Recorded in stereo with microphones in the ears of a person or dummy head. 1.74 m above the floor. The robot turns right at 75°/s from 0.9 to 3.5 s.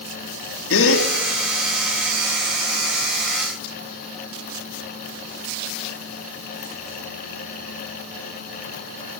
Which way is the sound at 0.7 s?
75° left (ahead or behind).